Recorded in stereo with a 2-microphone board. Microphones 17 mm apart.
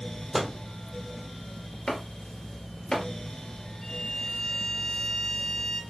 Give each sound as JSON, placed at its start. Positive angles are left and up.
{"t": 0.3, "sound": "a microwave", "side_deg": 5, "distance_m": 1.0}
{"t": 1.9, "sound": "chopping", "side_deg": 45, "distance_m": 1.7}
{"t": 3.8, "sound": "a violin", "side_deg": 45, "distance_m": 1.7}